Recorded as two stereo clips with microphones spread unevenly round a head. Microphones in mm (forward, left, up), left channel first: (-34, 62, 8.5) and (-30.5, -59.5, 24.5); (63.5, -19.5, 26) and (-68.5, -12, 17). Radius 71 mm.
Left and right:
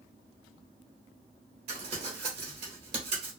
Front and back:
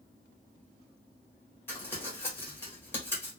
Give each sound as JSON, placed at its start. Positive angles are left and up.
{"t": 1.7, "sound": "crumpling", "azimuth_deg": -70, "distance_m": 1.1}